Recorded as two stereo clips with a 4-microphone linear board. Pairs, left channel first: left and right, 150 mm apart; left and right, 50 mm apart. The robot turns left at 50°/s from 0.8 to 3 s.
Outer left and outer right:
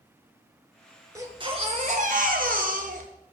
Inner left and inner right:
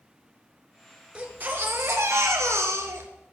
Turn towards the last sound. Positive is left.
turn(degrees=-115)